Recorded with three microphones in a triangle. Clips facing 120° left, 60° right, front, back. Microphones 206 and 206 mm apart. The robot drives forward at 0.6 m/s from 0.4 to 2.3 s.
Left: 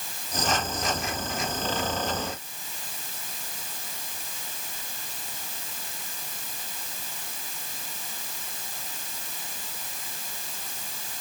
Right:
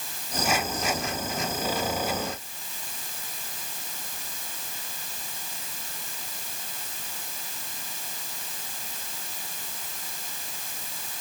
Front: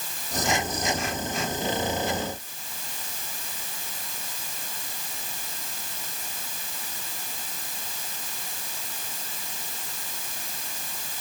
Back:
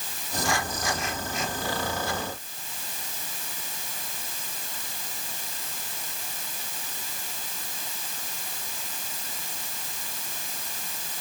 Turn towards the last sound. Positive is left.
No sound to turn to.